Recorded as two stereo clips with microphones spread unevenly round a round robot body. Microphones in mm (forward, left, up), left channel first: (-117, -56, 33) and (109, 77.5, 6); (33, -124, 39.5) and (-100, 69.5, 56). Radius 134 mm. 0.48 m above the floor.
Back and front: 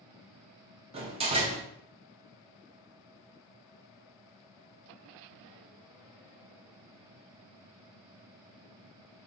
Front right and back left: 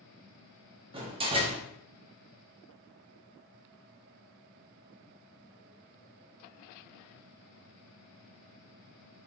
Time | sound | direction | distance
0.9 | a door slam | 70° left | 0.8 m